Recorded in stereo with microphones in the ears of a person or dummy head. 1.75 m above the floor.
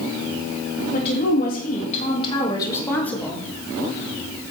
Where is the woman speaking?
60° left (ahead or behind), 1.9 m; by 3.4 s 5° left (ahead or behind), 2.0 m.